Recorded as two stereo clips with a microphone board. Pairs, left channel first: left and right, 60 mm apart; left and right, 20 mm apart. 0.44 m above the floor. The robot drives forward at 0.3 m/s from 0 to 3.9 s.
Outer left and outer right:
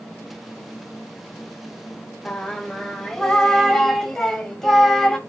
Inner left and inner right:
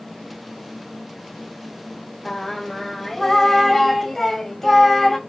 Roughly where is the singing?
Centre.